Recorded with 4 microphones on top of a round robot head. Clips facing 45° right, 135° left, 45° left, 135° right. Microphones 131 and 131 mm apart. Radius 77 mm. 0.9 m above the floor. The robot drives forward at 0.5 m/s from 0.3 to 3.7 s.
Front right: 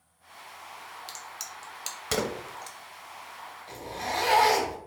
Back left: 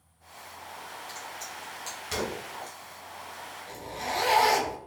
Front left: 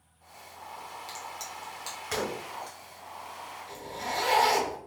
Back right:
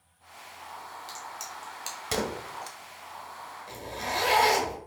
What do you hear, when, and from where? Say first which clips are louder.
1.1 s a crack: back left 3 dB, even; 40° right, 0.9 m; by 2.8 s 105° right, 0.6 m
3.7 s a zipper: front right 1 dB, back right 1 dB; 165° right, 1.1 m